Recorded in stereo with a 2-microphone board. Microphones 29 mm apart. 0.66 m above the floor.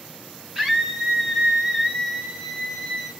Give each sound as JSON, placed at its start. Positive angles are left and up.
{"t": 0.6, "sound": "a scream", "side_deg": -15, "distance_m": 8.5}